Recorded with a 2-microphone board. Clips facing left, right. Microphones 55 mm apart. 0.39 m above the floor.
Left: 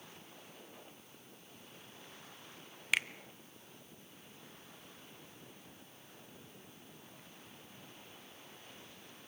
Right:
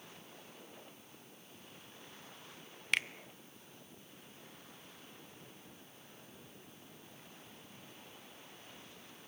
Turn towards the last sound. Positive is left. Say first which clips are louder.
# left 1 dB
turn(degrees=5)  # may be behind; listen again after turning